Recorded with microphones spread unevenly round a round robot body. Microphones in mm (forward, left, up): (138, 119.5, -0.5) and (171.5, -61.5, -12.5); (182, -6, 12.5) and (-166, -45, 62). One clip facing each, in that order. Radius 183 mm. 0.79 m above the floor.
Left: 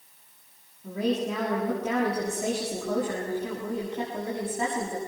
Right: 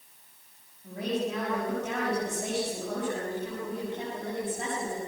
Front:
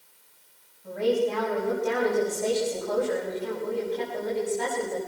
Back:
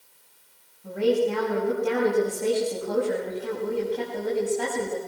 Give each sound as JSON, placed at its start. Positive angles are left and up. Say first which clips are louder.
{"t": 0.8, "sound": "a woman speaking", "louder": "left 4 dB, back 2 dB", "azimuth_deg": 130, "distance_m": 6.5}